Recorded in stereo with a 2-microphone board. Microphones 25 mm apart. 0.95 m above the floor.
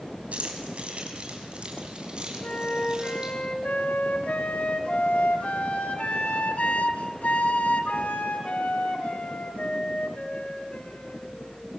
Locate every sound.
0.3 s keys jangling: 60° right (ahead or behind), 4.5 m; by 3.3 s 30° right (ahead or behind), 6.5 m
2.4 s a flute: 65° left (ahead or behind), 2.5 m